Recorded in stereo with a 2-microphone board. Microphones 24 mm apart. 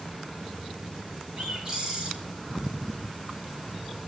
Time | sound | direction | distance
1.4 | a bird | 20° right (ahead or behind) | 6.5 m